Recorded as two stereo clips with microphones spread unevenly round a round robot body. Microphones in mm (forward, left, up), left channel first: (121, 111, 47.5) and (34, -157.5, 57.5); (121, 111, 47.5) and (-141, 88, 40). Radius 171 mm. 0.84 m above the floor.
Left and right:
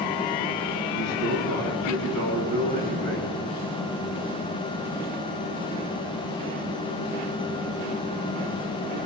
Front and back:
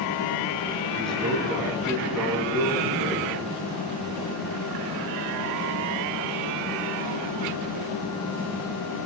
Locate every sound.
0.9 s a man speaking: 95° left, 7.5 m